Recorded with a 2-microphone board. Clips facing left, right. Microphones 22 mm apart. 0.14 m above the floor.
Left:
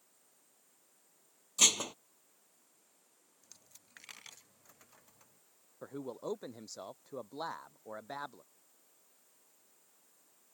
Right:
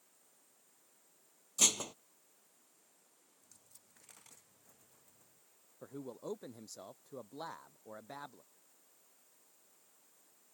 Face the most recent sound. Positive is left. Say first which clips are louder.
# left 4 dB
turn(degrees=25)  # may be behind; listen again after turning